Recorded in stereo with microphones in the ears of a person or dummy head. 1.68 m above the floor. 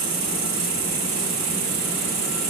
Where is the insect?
55° right (ahead or behind), 1.6 m.